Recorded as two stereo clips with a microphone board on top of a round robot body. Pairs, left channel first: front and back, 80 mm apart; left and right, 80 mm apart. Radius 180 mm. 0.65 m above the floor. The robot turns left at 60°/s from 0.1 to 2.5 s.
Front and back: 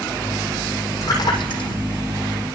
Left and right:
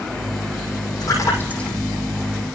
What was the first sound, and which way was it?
A splash, 50° left.